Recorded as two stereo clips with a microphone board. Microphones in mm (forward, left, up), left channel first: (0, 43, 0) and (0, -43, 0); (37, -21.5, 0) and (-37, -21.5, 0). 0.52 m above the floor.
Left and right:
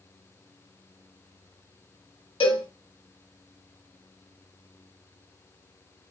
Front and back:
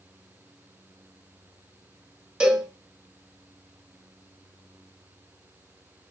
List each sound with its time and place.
2.4 s a cowbell: 100° left, 1.0 m